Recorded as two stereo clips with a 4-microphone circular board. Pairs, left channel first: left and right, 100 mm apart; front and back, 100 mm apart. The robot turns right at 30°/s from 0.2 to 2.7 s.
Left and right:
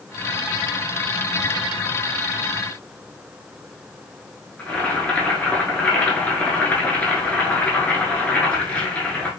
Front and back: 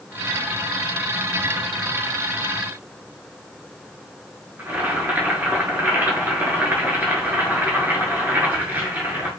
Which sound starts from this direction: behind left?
Boiling, at 4.6 s.